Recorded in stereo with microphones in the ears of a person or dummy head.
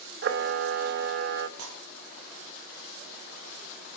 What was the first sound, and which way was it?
A camera shutter, 50° right (ahead or behind).